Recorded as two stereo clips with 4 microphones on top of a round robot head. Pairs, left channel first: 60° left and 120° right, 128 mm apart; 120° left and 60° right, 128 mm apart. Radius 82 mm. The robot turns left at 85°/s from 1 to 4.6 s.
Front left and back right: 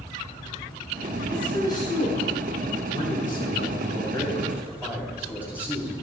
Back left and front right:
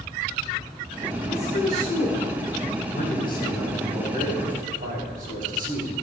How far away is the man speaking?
About 3 m.